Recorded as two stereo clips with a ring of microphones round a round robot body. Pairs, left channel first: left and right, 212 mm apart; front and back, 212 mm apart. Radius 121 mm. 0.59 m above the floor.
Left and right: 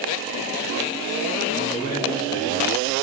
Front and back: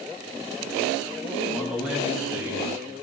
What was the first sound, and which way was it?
A man speaking, 90° left.